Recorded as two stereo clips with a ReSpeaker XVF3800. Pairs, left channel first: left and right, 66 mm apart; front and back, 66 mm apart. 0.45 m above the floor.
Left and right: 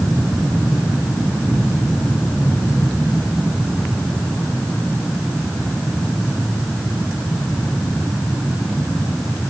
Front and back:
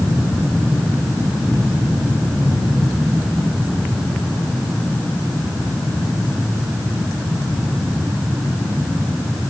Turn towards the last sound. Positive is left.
No sound to turn to.